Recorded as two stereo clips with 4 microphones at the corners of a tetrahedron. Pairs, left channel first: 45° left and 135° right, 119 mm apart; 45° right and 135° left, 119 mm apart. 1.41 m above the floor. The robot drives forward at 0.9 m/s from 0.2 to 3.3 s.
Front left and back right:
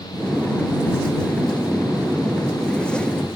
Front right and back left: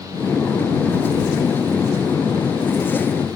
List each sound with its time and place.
Only background noise.